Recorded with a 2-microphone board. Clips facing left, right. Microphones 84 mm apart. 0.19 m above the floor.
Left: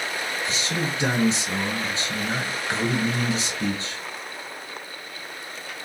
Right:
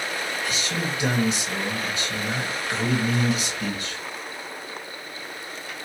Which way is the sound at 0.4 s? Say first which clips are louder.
Left 2 dB; 30° left (ahead or behind).